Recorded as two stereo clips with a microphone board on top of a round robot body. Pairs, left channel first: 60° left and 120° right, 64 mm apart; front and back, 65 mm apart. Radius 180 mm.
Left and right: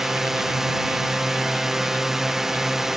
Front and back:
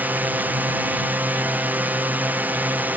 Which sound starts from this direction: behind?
A drone, at 0.0 s.